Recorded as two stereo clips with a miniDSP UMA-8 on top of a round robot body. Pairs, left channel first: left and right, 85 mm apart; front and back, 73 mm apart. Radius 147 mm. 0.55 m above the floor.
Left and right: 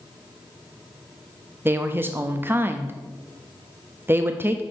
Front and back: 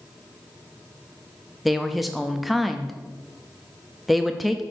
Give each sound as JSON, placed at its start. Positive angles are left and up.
{"t": 1.6, "sound": "a woman speaking", "azimuth_deg": -90, "distance_m": 0.7}